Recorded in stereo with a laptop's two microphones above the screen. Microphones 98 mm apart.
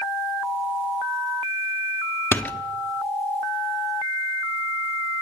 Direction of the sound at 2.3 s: 20° left (ahead or behind).